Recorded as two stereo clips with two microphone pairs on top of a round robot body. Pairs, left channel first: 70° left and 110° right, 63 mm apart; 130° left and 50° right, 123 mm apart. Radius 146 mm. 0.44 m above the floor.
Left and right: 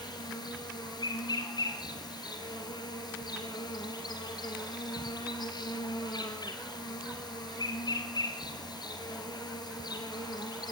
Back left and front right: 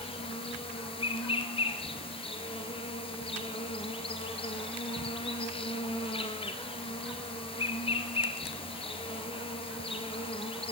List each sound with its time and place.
0.0 s an insect: 85° left, 2 m